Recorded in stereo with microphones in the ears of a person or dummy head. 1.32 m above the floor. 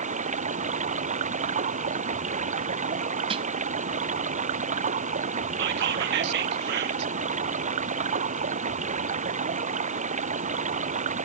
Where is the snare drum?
30° right (ahead or behind).